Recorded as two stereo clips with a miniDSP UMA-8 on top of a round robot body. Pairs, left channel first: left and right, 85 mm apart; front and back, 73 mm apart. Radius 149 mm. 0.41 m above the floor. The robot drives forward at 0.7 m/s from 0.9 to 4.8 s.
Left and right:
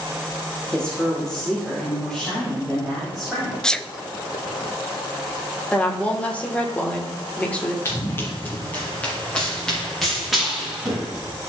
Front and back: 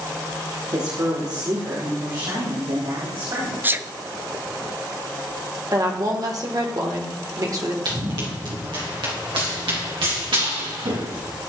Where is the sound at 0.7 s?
170° left, 2 m; by 3.5 s 175° left, 3.5 m.